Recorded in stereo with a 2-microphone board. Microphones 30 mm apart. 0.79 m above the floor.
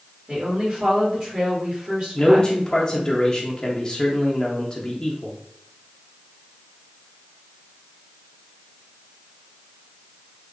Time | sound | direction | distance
0.3 | a woman speaking | 45° right (ahead or behind) | 1.8 m
2.1 | a man speaking | 25° left (ahead or behind) | 0.6 m